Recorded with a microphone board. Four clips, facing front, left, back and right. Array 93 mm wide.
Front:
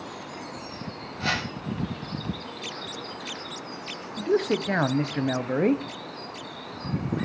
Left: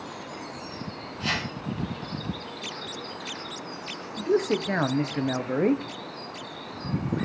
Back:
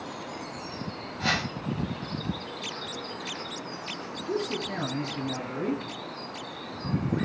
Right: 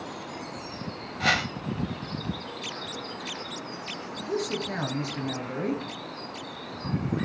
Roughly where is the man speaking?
Ahead left.